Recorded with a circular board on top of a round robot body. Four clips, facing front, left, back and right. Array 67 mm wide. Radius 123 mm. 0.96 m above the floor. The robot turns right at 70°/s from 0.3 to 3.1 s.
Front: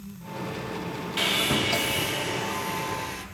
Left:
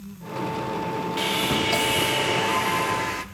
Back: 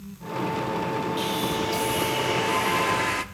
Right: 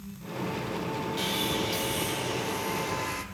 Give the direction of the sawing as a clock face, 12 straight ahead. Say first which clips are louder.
Left 7 dB, even; 11 o'clock.